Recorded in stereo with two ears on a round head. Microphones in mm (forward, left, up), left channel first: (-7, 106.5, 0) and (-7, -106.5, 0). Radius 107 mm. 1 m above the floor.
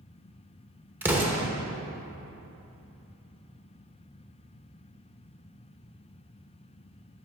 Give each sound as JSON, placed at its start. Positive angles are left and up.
{"t": 1.0, "sound": "an explosion", "side_deg": -10, "distance_m": 1.0}